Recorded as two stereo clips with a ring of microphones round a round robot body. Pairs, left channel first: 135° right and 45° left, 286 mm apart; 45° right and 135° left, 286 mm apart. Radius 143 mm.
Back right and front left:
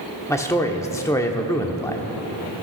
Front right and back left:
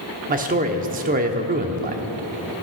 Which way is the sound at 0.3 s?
155° left.